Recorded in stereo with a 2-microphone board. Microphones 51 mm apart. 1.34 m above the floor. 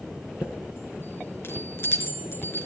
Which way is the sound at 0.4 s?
50° left (ahead or behind).